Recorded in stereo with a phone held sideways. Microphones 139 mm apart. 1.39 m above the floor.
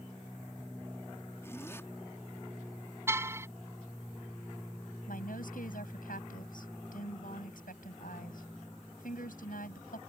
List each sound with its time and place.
1.4 s a zipper: 20° left (ahead or behind)
3.1 s a car horn: 20° right (ahead or behind)
5.1 s a woman speaking: 90° left